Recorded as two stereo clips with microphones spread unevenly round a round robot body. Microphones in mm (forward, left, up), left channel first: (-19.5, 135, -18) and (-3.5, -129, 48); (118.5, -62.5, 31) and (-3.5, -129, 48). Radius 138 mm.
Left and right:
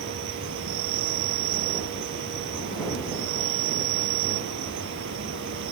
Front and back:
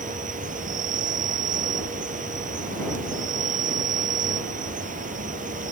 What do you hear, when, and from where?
0.0 s an insect: 130° right